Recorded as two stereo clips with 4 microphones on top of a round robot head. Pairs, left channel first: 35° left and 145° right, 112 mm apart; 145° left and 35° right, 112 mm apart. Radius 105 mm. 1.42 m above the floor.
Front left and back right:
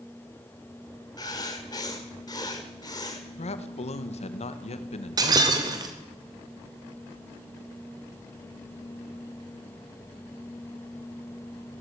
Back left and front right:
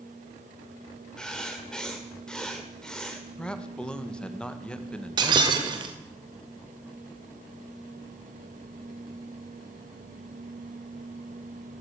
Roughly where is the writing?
Ahead left.